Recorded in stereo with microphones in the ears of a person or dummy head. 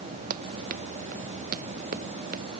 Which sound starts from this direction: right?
Running footsteps, at 0.3 s.